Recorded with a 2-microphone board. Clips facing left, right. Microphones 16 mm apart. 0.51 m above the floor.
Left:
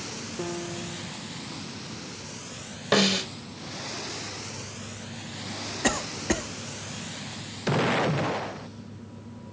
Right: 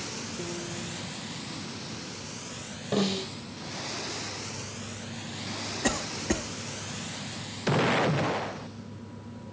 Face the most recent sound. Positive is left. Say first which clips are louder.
# left 3 dB
turn(degrees=20)  # may be behind; listen again after turning